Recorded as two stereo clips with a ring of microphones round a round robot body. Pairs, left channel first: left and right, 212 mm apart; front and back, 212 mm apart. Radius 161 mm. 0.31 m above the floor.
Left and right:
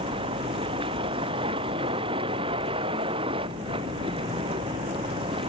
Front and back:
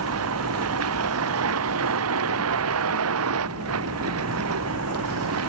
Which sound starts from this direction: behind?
A vehicle, at 0.0 s.